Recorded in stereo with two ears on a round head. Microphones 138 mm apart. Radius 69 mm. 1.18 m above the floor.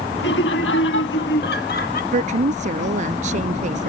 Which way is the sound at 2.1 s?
50° right (ahead or behind).